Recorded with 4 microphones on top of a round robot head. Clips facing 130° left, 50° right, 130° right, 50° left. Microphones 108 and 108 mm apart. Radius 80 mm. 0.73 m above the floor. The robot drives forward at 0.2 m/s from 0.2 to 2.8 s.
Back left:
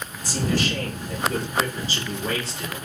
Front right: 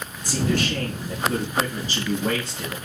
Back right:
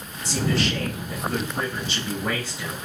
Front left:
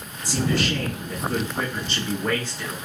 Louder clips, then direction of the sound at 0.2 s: Front right 1 dB, front left 1 dB; 40° right.